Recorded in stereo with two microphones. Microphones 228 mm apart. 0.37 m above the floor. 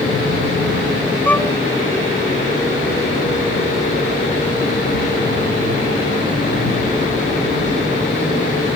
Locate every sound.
1.2 s a violin: 5° left (ahead or behind)